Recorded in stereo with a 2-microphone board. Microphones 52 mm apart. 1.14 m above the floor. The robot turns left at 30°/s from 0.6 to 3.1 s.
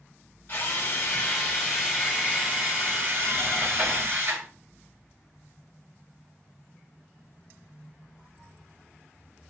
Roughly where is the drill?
Ahead left.